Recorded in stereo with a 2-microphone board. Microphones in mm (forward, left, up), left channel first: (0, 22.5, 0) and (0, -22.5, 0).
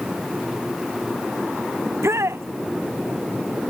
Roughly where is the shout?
Right.